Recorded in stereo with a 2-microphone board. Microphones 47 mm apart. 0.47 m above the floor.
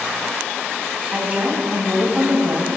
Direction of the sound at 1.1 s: 30° right (ahead or behind).